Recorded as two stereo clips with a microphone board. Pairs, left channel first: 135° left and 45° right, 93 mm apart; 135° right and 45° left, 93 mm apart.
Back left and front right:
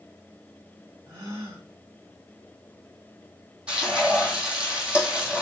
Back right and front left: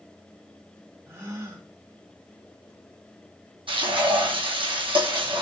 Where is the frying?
35° left, 2.5 m.